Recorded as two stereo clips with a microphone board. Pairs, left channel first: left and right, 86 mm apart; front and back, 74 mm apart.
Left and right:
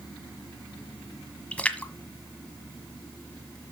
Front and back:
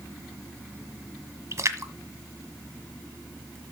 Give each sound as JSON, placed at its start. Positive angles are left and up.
{"t": 1.5, "sound": "a splash", "azimuth_deg": 160, "distance_m": 1.4}